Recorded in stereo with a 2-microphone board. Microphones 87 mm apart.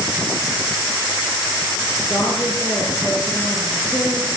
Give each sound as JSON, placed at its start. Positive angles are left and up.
{"t": 2.1, "sound": "a woman speaking", "side_deg": 0, "distance_m": 5.0}